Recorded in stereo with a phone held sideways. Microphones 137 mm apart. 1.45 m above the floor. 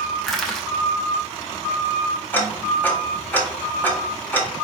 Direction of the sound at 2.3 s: 10° left (ahead or behind).